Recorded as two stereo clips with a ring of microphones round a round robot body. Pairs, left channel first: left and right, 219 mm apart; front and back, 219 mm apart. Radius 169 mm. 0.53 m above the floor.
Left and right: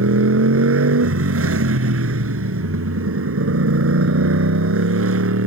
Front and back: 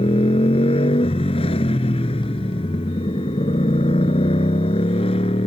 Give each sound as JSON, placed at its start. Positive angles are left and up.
{"t": 0.0, "sound": "a motorcycle", "azimuth_deg": -75}